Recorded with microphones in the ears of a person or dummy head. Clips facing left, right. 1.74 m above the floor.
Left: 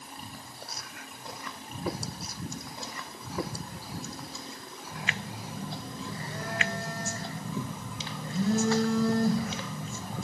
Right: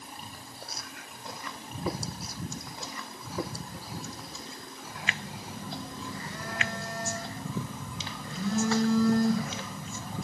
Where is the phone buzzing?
20° left (ahead or behind), 0.9 m.